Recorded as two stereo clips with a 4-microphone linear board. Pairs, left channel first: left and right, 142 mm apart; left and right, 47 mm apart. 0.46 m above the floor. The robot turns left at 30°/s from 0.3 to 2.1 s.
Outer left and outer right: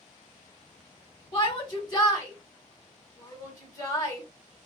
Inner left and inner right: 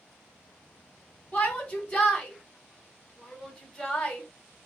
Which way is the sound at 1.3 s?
40° left (ahead or behind).